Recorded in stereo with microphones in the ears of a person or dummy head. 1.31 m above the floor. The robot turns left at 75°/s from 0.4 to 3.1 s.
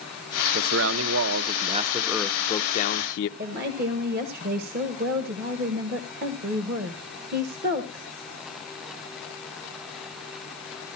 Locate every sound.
0.5 s a man speaking: 55° right, 0.7 m; by 3.3 s 115° left, 0.7 m
3.4 s a woman speaking: 60° right (ahead or behind), 1.4 m